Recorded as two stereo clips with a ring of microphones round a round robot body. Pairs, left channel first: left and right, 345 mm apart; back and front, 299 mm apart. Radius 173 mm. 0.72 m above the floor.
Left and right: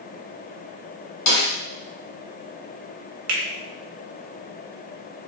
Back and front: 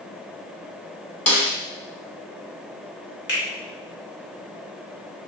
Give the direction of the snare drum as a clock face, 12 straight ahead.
9 o'clock.